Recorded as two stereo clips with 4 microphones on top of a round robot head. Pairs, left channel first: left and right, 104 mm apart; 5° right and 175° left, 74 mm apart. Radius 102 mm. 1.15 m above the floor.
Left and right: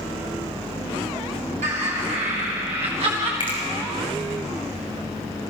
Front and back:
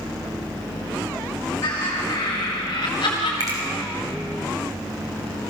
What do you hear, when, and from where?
1.6 s laughter: 65° right, 4 m; by 3.3 s 45° right, 3 m
3.4 s a finger snap: 135° left, 6 m